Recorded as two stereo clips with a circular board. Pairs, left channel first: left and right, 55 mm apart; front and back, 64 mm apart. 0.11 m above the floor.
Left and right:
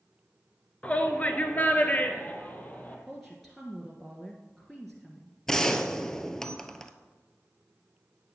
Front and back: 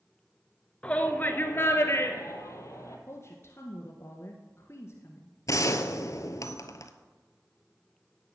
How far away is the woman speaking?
About 1.5 m.